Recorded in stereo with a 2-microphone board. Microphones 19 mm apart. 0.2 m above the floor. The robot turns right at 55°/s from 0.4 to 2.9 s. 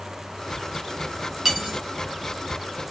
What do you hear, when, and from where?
1.4 s cutlery clinking: 20° right (ahead or behind), 1.1 m; by 1.8 s 30° right (ahead or behind), 1.1 m